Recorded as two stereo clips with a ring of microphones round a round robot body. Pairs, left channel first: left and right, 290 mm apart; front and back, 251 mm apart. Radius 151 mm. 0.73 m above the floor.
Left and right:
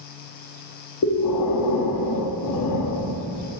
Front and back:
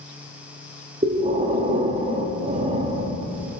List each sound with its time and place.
1.0 s breathing: 115° left, 0.7 m